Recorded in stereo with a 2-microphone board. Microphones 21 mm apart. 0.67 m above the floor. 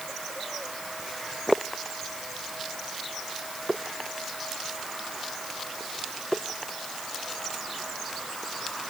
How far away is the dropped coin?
No dropped coin in this recording.